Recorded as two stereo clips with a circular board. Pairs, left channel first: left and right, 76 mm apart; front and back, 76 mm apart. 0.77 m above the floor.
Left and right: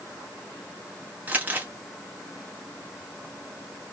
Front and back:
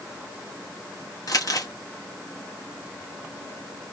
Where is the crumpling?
25° right, 1.2 m.